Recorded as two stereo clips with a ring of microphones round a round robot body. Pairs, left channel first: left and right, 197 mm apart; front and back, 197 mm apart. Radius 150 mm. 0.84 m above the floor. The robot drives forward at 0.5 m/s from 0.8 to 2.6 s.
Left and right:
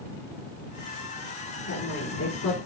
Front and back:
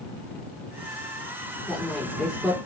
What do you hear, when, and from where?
1.7 s a woman speaking: 85° left, 2.5 m; by 2.6 s 95° left, 2.5 m